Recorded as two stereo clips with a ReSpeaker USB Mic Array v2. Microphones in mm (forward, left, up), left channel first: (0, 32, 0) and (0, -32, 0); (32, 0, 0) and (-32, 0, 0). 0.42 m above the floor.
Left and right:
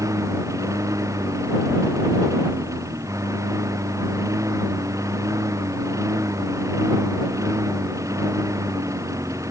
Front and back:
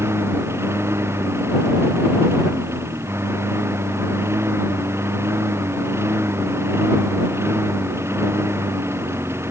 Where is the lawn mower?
130° right.